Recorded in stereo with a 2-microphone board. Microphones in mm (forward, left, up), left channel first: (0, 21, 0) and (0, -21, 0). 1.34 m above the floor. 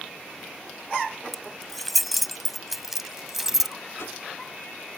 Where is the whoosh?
90° left.